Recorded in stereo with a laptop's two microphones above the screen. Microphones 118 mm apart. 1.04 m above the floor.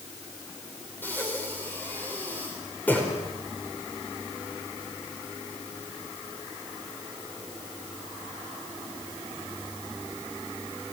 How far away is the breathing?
About 5 m.